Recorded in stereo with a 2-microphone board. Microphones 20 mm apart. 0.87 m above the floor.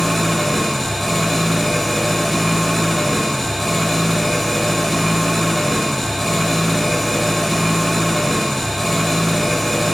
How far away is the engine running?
About 2.5 m.